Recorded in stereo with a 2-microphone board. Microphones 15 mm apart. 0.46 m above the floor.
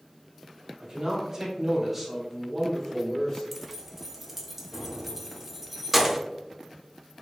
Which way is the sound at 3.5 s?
15° right (ahead or behind).